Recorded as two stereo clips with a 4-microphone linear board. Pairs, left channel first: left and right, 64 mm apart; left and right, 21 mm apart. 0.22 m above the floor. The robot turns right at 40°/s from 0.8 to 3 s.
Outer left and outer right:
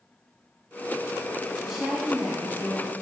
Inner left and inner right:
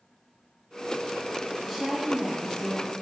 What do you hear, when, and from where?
1.6 s a woman speaking: 10° right (ahead or behind), 1.2 m; by 2.9 s 25° right (ahead or behind), 1.2 m